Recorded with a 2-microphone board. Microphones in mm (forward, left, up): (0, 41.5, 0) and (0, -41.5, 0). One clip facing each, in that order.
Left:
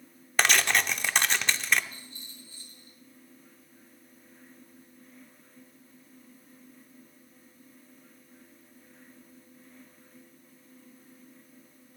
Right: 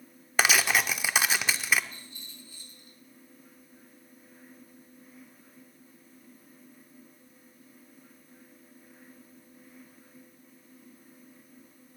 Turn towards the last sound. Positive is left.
turn(degrees=30)  # may be behind; listen again after turning